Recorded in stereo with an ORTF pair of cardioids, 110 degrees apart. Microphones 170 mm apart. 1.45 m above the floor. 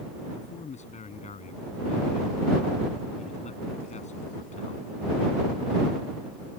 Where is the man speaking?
40° left.